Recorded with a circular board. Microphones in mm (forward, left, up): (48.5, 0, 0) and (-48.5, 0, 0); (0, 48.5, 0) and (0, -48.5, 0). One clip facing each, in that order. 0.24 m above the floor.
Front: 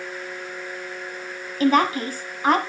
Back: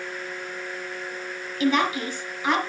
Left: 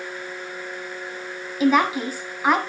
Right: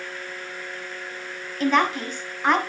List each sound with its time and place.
1.6 s a woman speaking: 10° left, 1.4 m